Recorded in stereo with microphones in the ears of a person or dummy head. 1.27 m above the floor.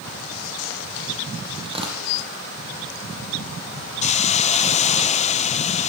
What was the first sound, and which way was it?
Tearing paper, 35° right (ahead or behind).